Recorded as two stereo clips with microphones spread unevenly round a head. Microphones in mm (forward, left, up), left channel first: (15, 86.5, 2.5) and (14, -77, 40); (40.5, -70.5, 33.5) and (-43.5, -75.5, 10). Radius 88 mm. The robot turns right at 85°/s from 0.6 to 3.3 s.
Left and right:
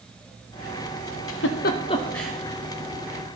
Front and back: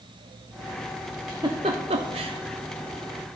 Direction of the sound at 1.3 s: 100° left.